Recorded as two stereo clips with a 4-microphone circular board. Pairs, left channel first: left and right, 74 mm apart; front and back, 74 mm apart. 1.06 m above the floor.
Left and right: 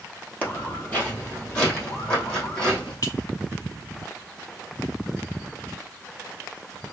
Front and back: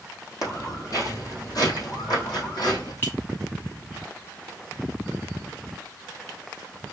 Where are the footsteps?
35° left, 1.8 m; by 2.9 s 20° left, 3.5 m.